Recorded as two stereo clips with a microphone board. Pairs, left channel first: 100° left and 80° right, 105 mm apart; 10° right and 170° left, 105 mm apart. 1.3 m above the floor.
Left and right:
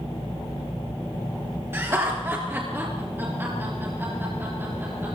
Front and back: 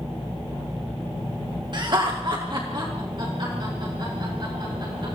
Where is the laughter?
145° right, 1.5 m; by 5.2 s 150° right, 4 m.